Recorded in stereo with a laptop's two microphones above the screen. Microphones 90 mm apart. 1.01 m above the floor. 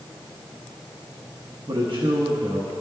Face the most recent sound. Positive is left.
turn(degrees=-65)  # may be behind; listen again after turning